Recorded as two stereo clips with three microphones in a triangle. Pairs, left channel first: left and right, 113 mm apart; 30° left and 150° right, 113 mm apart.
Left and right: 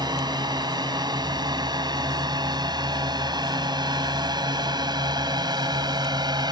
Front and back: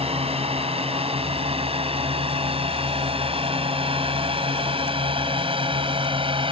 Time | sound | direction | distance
0.0 | a drone | 135° right | ?